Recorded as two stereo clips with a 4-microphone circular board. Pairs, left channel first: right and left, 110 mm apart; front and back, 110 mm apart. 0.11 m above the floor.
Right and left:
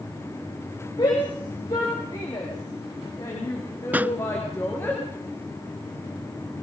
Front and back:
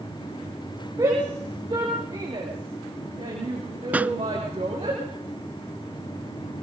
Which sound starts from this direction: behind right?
A shout, at 1.0 s.